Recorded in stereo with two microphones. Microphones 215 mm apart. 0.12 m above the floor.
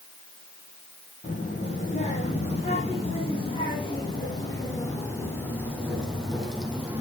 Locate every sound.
1.2 s a child speaking: 35° left (ahead or behind), 4.5 m; by 7.0 s 5° right (ahead or behind), 2.5 m